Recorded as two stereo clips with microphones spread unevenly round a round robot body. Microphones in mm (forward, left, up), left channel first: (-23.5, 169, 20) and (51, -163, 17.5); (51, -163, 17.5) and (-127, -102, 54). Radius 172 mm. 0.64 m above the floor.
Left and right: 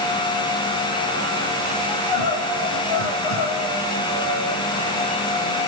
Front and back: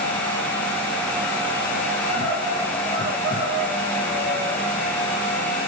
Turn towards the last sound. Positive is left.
turn(degrees=85)